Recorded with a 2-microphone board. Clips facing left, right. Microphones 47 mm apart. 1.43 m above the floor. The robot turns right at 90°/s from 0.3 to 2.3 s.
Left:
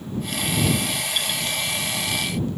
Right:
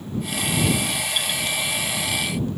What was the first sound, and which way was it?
Only background noise.